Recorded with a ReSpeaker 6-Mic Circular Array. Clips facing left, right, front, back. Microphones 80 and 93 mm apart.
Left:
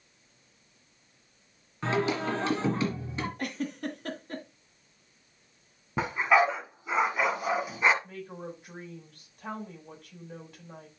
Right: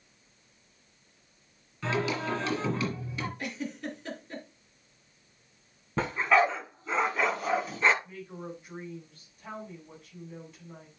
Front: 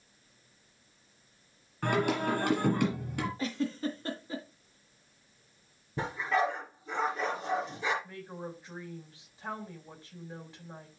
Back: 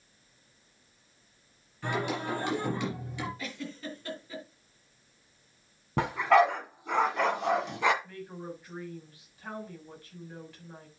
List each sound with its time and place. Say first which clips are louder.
1.8 s singing: left 2 dB, front 3 dB; 35° left, 4 m
3.4 s a giggle: left 2 dB, front 7 dB; 55° left, 2.5 m
6.0 s a dog barking: left 1 dB, back 7 dB; 170° left, 1.8 m
8.0 s a woman speaking: left 1 dB, back 1 dB; 70° left, 4 m